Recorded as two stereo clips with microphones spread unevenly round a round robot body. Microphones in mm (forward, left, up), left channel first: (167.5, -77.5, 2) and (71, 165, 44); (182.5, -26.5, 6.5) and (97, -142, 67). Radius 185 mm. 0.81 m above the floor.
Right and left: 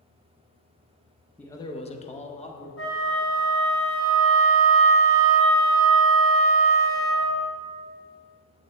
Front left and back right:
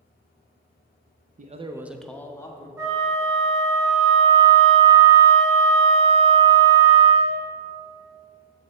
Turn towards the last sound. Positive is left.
turn(degrees=-45)